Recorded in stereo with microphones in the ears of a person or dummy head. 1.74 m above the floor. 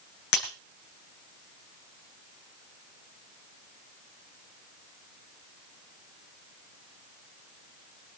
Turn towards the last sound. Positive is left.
turn(degrees=70)  # may be behind; listen again after turning